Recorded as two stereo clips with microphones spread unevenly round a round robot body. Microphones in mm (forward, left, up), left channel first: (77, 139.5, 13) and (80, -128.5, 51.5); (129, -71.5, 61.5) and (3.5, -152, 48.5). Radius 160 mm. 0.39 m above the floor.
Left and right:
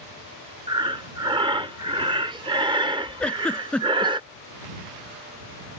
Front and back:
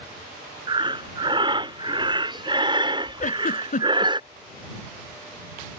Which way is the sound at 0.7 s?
165° right.